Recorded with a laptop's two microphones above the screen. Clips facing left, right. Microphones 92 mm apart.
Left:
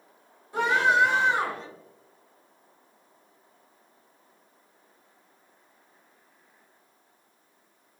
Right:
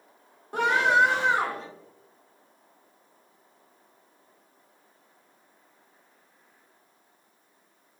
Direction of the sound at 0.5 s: 60° right (ahead or behind).